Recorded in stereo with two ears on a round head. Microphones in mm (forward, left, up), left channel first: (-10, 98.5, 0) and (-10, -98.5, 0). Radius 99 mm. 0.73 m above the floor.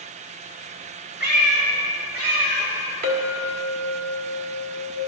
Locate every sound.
1.2 s a cat meowing: 55° right (ahead or behind), 3.5 m; by 2.7 s 80° right, 4.5 m
3.0 s a clink: 45° right (ahead or behind), 1.7 m